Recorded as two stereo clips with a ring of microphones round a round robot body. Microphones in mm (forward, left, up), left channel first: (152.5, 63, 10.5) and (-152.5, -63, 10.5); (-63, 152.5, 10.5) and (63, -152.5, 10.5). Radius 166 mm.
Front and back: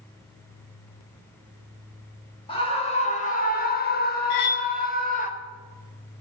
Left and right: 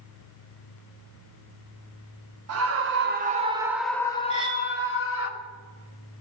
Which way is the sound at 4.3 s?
5° left.